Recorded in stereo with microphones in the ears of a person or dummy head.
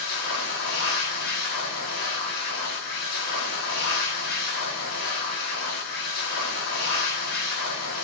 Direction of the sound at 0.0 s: 50° left (ahead or behind).